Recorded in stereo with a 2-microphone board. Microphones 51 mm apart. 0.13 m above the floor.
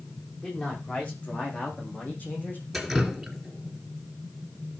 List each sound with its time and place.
0.4 s a man speaking: 20° left (ahead or behind), 8 m; by 2.6 s 35° left (ahead or behind), 7.5 m
2.7 s dripping: 5° right (ahead or behind), 2.5 m